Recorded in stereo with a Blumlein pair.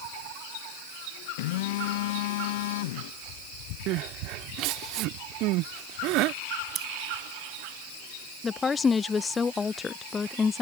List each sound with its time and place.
1.4 s a phone buzzing: 50° left
3.9 s crying: 40° right
6.8 s scissors: 25° right
8.4 s a woman speaking: 15° left